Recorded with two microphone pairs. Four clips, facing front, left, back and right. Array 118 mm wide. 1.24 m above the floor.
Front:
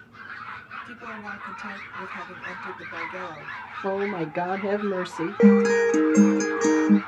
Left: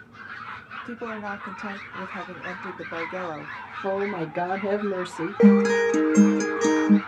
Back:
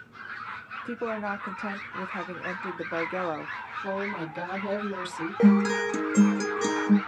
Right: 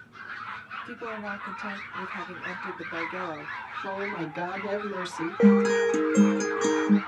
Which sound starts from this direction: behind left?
A woman speaking, at 0.8 s.